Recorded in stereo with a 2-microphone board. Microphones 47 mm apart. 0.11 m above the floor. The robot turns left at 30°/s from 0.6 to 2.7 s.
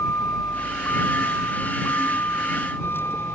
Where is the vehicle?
115° left; by 3.4 s 55° left.